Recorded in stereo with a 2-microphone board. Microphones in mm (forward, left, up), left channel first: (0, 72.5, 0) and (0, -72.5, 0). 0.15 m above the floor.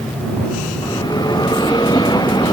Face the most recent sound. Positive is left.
turn(degrees=30)  # may be behind; listen again after turning